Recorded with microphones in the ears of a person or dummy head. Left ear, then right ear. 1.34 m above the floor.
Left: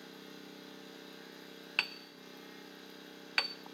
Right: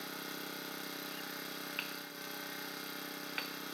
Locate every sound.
0.0 s an engine running: 50° right (ahead or behind), 0.8 m
1.8 s hammering: 35° left (ahead or behind), 0.5 m